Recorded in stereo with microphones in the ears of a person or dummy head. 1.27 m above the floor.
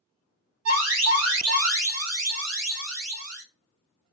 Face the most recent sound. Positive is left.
turn(degrees=-70)  # may be behind; listen again after turning